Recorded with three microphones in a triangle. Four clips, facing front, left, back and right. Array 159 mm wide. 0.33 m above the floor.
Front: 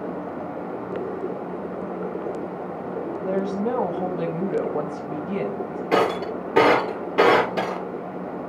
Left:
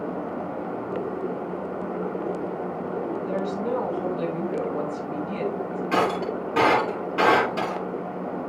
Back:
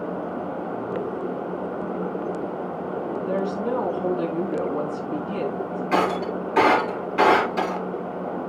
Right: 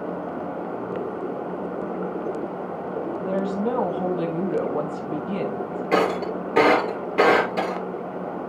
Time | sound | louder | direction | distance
3.2 | a woman speaking | right 2 dB, front 2 dB | 40° right | 1.9 m
5.9 | breaking glass | right 2 dB, front 1 dB | 25° right | 3 m